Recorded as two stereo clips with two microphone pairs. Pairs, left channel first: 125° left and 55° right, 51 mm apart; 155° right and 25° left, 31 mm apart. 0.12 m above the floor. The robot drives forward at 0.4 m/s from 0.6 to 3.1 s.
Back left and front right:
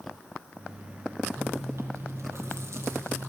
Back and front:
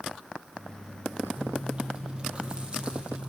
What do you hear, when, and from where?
1.4 s chewing: 30° right, 5 m; by 3.3 s 35° right, 4.5 m